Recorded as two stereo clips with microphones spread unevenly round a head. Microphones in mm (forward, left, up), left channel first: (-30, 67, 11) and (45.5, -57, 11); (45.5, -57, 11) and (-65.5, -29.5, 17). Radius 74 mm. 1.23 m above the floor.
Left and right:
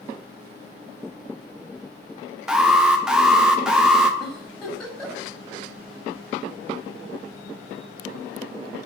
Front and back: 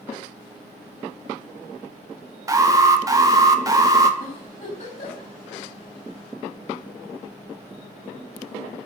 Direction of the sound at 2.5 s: 140° right.